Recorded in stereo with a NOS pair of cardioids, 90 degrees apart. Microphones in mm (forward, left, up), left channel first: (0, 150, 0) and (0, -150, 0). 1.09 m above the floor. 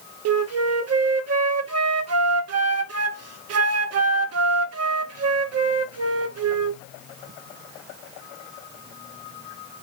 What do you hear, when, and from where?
0.2 s a flute: 55° right, 0.6 m